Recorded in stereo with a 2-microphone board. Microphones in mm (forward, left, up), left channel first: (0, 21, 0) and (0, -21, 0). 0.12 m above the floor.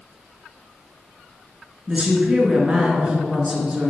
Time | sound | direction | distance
1.9 | a woman speaking | 20° right (ahead or behind) | 1.5 m